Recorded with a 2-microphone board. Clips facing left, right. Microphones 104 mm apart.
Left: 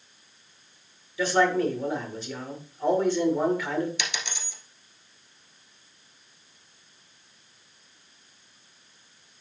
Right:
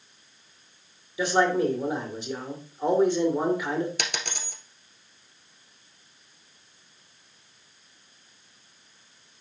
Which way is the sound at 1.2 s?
15° right (ahead or behind).